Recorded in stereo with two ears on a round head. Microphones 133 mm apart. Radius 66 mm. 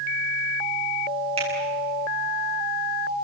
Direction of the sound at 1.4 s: 40° right (ahead or behind).